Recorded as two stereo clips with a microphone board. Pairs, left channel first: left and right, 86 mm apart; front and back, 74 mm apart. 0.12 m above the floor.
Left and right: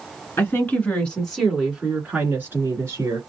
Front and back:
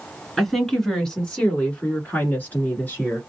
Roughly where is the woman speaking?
Left.